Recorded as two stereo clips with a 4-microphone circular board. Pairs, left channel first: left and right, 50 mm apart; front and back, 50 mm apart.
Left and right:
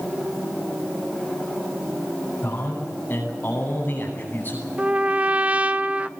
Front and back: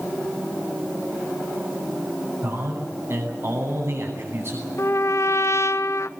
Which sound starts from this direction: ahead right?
A trumpet, at 4.8 s.